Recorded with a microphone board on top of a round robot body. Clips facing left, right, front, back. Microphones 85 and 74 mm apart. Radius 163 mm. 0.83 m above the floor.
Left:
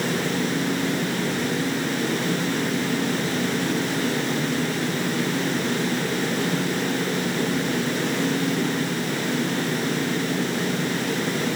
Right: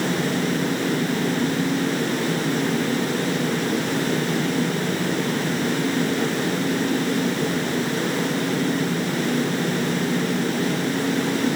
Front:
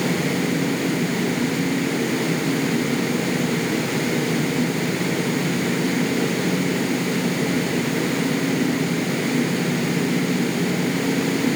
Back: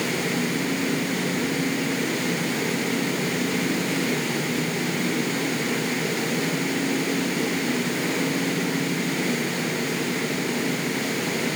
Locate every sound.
Only background noise.